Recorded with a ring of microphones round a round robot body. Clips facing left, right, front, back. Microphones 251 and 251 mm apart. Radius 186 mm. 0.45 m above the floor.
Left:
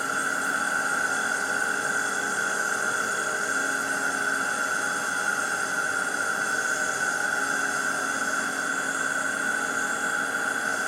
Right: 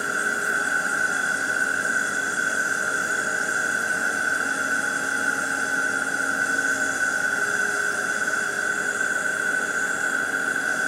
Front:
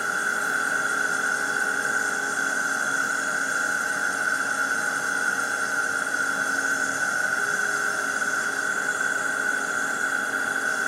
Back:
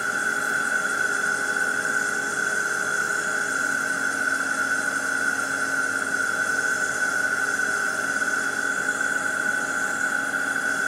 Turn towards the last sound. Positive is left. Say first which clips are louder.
# right 2 dB, back 1 dB
turn(degrees=-150)